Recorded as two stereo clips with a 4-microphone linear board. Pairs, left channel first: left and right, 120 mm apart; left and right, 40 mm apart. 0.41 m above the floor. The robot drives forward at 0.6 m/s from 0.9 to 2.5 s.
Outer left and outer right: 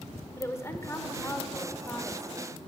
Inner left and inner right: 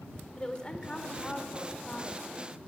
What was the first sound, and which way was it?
A woman speaking, 25° left (ahead or behind).